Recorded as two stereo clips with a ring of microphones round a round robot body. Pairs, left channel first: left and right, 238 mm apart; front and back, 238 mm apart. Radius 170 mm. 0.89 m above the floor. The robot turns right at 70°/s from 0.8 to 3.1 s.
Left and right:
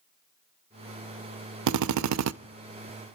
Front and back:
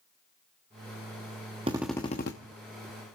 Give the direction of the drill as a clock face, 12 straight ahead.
4 o'clock.